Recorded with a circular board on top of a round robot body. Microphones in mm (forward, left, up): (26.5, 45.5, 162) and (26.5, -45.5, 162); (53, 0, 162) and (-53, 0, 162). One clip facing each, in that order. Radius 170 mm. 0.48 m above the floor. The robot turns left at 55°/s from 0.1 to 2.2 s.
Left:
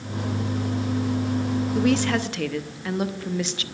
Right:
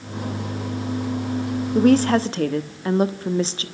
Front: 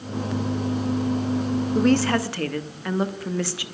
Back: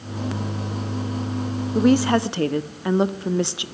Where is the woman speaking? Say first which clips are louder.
Right 7 dB, back 3 dB; 100° right, 1.5 m; by 3.6 s 125° right, 1.5 m.